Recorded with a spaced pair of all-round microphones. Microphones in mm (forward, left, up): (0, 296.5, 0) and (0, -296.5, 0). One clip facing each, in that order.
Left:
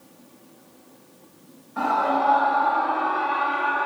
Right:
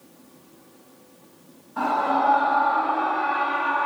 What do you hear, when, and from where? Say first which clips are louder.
1.8 s a scream: even; 5° left (ahead or behind), 1.6 m; by 3.9 s 35° right (ahead or behind), 0.7 m